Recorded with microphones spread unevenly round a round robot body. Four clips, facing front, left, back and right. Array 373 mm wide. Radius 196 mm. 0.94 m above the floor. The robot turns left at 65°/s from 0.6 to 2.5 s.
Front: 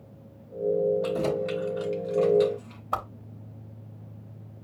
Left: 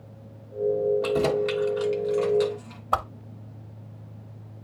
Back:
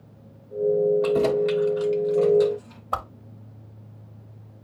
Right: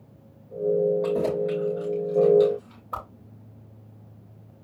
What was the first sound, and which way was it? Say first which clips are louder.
Keys jangling: left 1 dB, back 6 dB; 155° left.